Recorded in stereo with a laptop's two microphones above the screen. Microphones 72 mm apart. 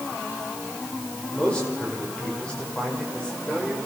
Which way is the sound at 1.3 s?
15° left (ahead or behind).